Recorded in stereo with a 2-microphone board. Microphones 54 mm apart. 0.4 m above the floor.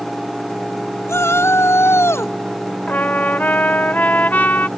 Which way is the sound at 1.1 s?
55° left (ahead or behind).